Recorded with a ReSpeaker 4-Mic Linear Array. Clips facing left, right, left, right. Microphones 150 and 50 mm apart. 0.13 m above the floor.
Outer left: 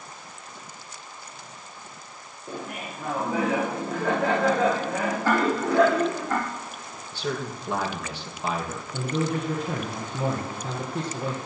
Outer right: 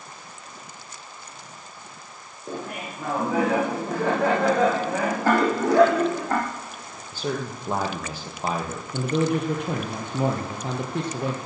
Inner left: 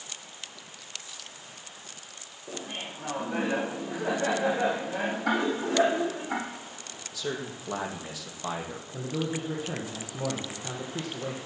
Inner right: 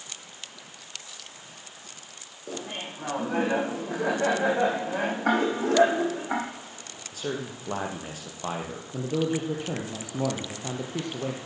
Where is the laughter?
80° right, 7 m.